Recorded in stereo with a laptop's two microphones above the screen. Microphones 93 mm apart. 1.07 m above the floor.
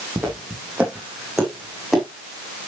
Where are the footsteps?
20° right (ahead or behind), 3.5 m; by 2.0 s centre (ahead or behind), 3.5 m.